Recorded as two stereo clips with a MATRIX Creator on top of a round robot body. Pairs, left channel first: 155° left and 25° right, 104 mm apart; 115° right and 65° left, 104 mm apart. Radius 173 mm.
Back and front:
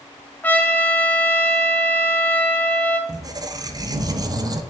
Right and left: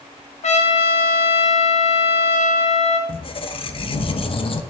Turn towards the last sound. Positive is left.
turn(degrees=-75)